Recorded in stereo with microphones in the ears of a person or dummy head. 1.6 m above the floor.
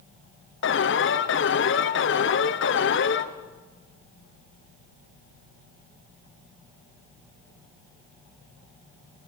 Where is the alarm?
60° left (ahead or behind), 1.6 m.